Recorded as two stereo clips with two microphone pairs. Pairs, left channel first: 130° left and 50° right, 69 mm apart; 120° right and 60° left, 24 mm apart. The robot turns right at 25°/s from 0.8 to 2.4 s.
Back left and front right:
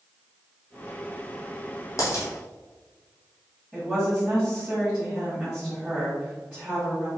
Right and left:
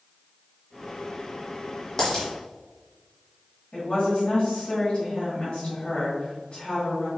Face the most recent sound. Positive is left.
turn(degrees=-135)